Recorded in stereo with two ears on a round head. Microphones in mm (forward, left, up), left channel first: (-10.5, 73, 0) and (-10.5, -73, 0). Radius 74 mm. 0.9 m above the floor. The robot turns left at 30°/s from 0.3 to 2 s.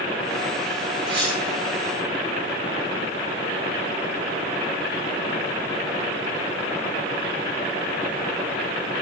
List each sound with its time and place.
1.1 s cutlery clinking: 30° right (ahead or behind), 10 m; by 1.4 s 40° right (ahead or behind), 10 m